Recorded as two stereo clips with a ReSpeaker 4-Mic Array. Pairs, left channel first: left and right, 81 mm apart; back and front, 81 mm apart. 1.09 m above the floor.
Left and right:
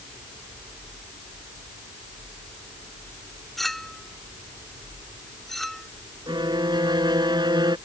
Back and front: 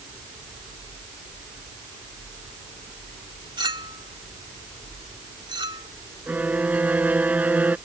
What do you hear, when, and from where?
3.6 s a clink: straight ahead
6.3 s a violin: 70° right